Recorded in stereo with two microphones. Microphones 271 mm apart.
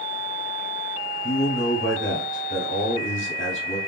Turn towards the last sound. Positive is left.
turn(degrees=45)  # may be behind; listen again after turning